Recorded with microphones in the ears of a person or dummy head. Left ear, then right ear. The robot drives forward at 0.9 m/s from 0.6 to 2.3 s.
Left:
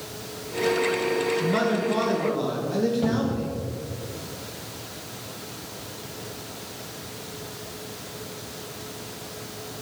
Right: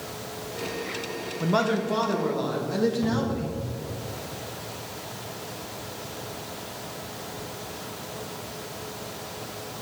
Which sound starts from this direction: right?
A man speaking, at 1.4 s.